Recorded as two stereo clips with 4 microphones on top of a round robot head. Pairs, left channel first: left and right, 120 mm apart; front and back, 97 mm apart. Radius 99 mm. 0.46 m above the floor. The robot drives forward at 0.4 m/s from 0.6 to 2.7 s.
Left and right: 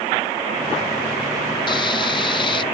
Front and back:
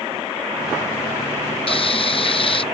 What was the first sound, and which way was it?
Frying, 30° left.